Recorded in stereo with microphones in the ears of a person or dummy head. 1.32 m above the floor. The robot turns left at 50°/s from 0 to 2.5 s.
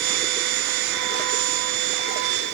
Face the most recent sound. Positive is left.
No sound to turn to.